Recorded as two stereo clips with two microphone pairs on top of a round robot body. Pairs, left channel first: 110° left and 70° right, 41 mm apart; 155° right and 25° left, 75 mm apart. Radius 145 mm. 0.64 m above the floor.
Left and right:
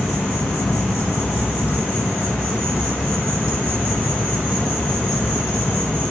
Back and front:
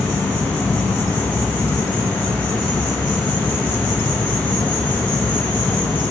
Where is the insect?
140° left, 2.5 m.